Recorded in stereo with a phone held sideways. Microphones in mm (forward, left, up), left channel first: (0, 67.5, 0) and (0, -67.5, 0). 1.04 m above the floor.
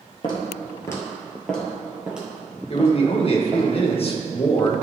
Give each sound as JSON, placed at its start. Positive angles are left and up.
{"t": 0.2, "sound": "footsteps", "side_deg": 35, "distance_m": 1.6}
{"t": 2.7, "sound": "a man speaking", "side_deg": 45, "distance_m": 1.0}